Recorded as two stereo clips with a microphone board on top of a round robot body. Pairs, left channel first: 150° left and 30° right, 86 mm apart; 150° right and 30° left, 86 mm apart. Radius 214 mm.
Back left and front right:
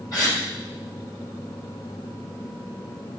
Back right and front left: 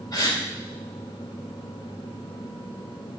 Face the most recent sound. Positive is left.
turn(degrees=180)